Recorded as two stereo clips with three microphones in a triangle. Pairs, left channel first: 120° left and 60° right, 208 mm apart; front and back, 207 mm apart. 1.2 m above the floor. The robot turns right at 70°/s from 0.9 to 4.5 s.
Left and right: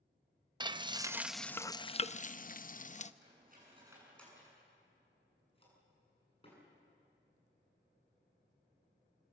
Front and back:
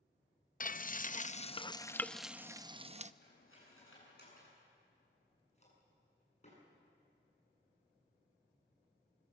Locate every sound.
0.6 s frying: straight ahead, 0.5 m; by 3.1 s 155° left, 0.5 m
3.2 s cutlery clinking: 35° right, 8.5 m; by 6.6 s 55° left, 8.5 m